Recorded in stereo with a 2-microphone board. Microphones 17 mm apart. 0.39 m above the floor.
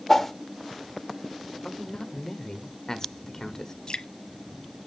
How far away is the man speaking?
About 1.4 m.